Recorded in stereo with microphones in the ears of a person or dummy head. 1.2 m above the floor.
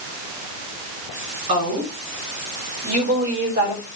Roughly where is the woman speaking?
Right.